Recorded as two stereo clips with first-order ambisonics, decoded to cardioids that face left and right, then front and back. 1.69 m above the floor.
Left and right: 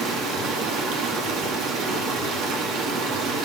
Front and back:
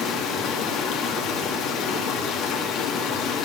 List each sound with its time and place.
0.0 s running water: 50° right, 3.5 m